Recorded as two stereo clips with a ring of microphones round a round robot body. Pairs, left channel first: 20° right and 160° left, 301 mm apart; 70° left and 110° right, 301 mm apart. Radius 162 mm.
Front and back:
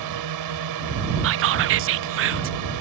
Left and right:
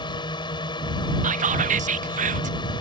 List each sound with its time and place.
0.0 s a drone: 140° left
1.2 s whispering: 170° right